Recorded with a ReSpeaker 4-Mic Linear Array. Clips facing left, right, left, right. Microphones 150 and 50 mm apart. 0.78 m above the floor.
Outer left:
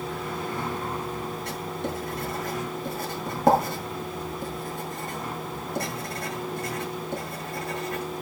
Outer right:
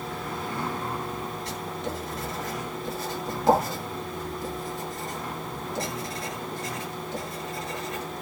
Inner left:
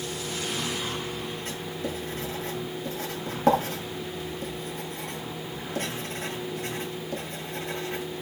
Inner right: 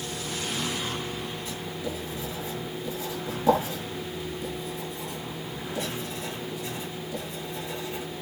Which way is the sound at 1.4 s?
55° left (ahead or behind).